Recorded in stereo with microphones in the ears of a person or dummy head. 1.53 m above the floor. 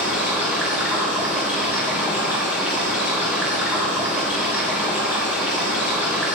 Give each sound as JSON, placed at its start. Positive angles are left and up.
{"t": 0.0, "sound": "running water", "side_deg": -5, "distance_m": 1.2}